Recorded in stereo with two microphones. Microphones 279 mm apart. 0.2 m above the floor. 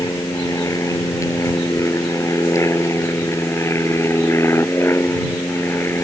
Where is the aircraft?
10° left (ahead or behind).